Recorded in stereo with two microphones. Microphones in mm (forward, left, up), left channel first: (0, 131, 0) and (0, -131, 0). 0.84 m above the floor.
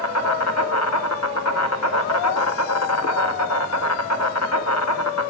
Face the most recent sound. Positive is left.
turn(degrees=70)  # may be behind; listen again after turning